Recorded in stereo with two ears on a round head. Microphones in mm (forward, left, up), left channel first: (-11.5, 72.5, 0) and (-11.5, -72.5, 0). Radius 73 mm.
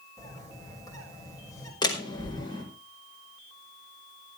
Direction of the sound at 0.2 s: 20° left (ahead or behind).